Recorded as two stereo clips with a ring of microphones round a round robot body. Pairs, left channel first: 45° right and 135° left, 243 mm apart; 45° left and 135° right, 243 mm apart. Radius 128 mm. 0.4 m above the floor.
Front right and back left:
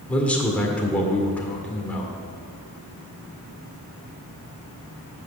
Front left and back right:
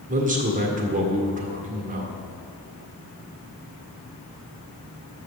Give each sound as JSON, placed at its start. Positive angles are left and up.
{"t": 0.1, "sound": "a man speaking", "azimuth_deg": -125, "distance_m": 1.6}